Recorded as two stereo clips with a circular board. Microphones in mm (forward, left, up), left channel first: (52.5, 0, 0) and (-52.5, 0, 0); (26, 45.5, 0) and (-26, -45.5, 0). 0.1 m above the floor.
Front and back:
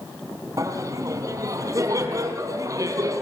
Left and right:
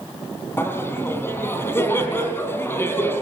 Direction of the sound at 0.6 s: 125° left.